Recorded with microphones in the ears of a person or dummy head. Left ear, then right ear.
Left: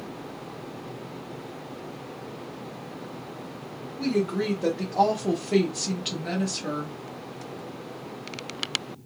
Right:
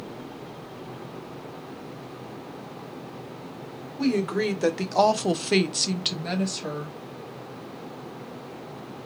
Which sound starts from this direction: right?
A woman speaking, at 4.0 s.